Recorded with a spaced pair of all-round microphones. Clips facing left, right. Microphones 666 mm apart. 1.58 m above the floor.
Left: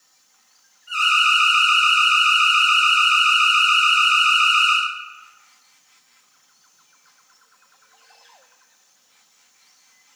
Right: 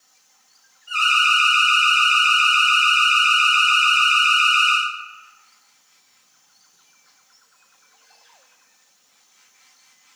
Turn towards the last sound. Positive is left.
turn(degrees=0)  # may be behind; listen again after turning